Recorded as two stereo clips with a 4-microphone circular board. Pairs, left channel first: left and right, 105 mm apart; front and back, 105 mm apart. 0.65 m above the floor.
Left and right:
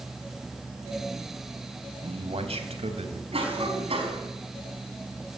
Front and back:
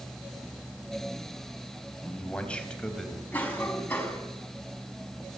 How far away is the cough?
About 6 m.